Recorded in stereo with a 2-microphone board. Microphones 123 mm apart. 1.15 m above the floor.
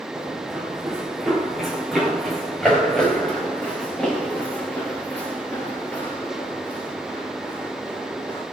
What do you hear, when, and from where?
0.1 s running footsteps: 10° right (ahead or behind), 5.5 m; by 8.4 s 15° left (ahead or behind), 9.5 m